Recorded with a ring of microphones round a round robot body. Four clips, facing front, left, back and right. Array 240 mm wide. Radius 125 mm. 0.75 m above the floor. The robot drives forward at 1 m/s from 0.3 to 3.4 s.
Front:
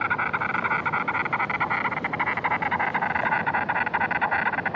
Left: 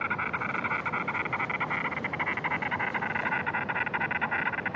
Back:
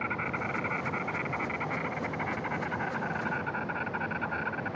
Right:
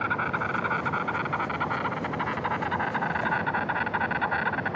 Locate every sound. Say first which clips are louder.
0.0 s an insect: right 4 dB, front 8 dB; 10° right; by 4.8 s 15° right